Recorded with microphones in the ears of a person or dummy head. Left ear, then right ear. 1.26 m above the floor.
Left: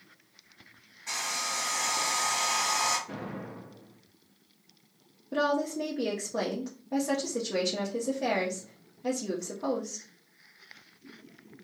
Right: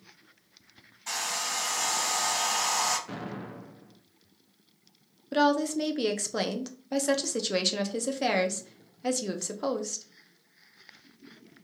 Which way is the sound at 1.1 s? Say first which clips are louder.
Right 1 dB; 60° right (ahead or behind).